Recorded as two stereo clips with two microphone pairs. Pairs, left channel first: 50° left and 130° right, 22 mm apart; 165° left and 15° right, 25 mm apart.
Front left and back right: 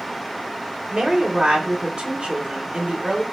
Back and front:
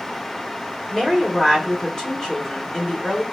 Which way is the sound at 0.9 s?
120° right.